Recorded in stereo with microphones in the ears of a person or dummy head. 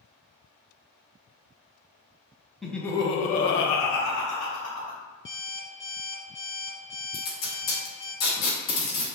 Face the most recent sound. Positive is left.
turn(degrees=55)  # may be behind; listen again after turning